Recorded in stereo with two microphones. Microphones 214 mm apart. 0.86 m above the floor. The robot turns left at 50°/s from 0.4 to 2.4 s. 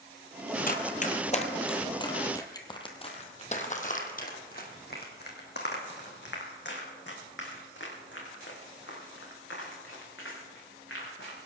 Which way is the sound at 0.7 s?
40° left (ahead or behind).